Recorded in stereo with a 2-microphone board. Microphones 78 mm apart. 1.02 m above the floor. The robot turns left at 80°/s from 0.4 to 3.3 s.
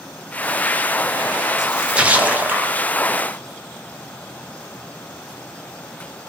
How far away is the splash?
About 0.5 m.